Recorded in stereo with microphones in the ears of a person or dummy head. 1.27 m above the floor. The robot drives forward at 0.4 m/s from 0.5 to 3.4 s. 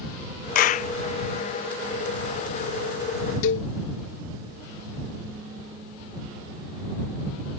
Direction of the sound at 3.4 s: 70° left (ahead or behind).